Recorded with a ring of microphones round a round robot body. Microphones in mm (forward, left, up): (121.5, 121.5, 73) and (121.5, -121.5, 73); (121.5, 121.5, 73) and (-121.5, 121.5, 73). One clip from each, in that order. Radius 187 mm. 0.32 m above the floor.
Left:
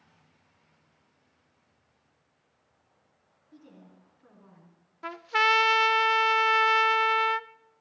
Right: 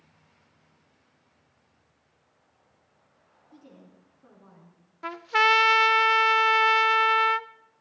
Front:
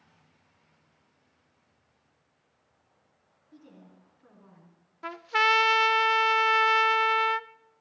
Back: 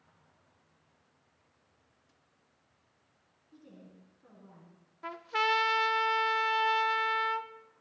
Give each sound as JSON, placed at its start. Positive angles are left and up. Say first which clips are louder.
{"t": 3.5, "sound": "a woman speaking", "louder": "right 1 dB, front 2 dB", "azimuth_deg": 15, "distance_m": 4.5}
{"t": 5.0, "sound": "a trumpet", "louder": "right 3 dB, front 6 dB", "azimuth_deg": 5, "distance_m": 0.5}